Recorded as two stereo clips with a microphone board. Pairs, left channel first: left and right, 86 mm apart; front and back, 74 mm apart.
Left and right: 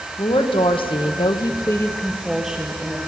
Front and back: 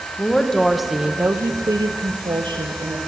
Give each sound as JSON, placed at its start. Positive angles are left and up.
{"t": 0.2, "sound": "a woman speaking", "azimuth_deg": 75, "distance_m": 2.0}